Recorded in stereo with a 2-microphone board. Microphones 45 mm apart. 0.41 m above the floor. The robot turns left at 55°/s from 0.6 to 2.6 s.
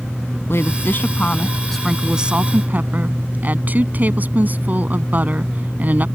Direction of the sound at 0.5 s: 65° left.